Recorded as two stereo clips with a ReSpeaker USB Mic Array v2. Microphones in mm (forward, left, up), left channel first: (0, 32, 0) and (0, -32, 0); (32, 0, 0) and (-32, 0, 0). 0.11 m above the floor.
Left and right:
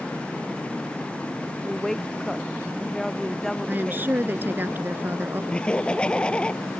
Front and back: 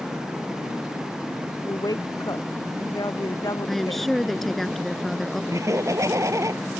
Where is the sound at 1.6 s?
5° left.